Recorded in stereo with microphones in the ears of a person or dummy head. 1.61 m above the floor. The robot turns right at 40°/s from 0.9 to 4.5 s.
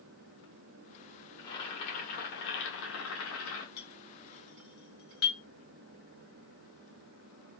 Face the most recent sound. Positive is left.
turn(degrees=70)  # may be behind; listen again after turning